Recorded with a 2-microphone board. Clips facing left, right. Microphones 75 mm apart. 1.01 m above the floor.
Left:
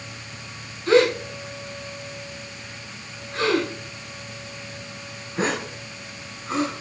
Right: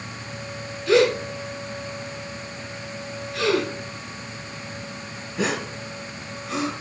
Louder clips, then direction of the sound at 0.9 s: Left 1 dB; 40° left (ahead or behind).